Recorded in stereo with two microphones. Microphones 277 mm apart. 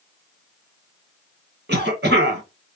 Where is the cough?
40° right (ahead or behind), 1.7 m.